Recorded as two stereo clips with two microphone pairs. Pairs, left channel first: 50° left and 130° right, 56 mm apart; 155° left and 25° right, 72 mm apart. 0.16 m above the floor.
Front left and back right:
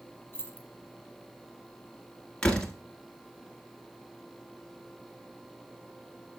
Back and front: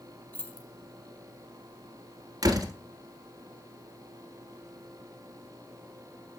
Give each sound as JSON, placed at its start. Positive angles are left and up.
{"t": 0.3, "sound": "keys jangling", "azimuth_deg": 100, "distance_m": 1.8}
{"t": 2.4, "sound": "a door slam", "azimuth_deg": -25, "distance_m": 1.5}